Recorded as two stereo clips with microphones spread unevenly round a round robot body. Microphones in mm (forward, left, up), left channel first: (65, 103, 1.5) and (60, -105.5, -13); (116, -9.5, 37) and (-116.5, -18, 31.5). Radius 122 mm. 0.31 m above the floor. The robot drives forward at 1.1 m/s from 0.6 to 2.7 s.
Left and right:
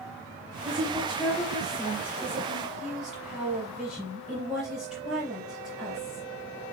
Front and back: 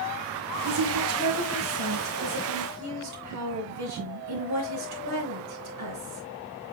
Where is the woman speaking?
175° right, 2.5 m; by 6.2 s straight behind, 5 m.